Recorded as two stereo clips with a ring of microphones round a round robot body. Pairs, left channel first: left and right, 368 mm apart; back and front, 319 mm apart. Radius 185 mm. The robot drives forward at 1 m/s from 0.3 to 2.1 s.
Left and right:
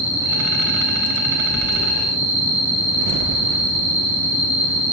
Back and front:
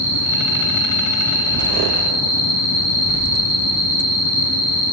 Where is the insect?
165° right, 9.5 m.